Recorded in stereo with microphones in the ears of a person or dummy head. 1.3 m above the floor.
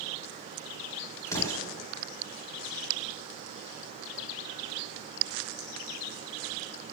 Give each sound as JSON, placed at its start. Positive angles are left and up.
{"t": 1.3, "sound": "an explosion", "side_deg": 15, "distance_m": 1.5}